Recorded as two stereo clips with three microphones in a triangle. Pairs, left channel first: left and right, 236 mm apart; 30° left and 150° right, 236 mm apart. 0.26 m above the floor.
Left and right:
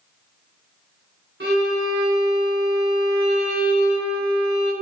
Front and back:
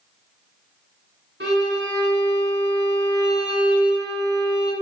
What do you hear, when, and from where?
1.4 s a violin: 120° right, 1.5 m